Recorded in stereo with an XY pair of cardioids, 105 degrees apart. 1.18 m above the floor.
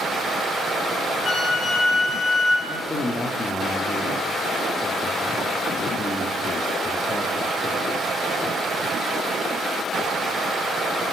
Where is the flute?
50° left, 6 m.